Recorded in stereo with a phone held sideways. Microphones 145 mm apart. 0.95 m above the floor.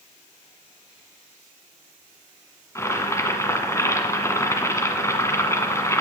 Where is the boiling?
20° left (ahead or behind), 1.6 m.